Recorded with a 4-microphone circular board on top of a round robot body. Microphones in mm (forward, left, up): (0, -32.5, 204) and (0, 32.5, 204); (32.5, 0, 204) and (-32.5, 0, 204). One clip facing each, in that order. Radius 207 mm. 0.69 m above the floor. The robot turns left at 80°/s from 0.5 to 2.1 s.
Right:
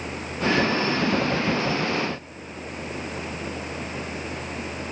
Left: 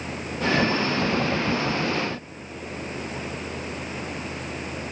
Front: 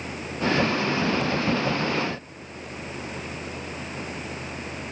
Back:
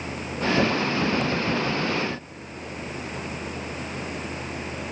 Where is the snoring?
I don't hear snoring.